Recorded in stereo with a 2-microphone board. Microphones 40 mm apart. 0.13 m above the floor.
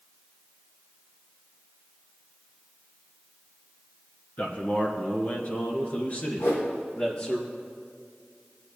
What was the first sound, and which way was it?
A man speaking, 45° left (ahead or behind).